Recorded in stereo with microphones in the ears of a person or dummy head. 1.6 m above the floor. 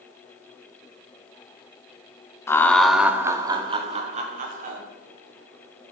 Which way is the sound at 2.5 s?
15° left (ahead or behind).